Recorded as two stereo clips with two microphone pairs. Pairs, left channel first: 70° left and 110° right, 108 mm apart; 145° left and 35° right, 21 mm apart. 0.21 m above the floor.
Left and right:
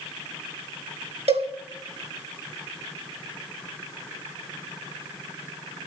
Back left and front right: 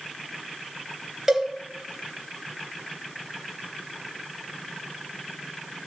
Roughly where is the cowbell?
Right.